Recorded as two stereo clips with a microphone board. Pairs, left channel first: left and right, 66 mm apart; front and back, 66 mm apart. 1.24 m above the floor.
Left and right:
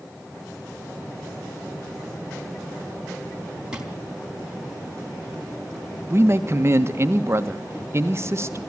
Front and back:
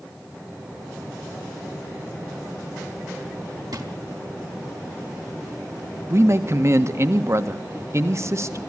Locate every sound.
3.7 s a drawer: 165° right, 3 m
6.1 s a man speaking: 135° right, 1.5 m